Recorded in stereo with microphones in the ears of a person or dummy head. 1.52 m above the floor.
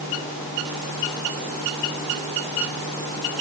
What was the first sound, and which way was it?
Only background noise.